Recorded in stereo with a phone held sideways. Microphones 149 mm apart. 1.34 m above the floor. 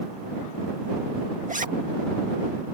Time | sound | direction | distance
1.5 | a zipper | 60° right (ahead or behind) | ?